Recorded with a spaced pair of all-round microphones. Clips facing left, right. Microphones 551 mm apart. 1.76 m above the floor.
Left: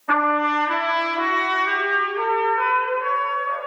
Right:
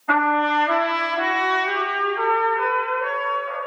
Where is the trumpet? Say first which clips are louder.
Right 1 dB; 5° right (ahead or behind), 3 m.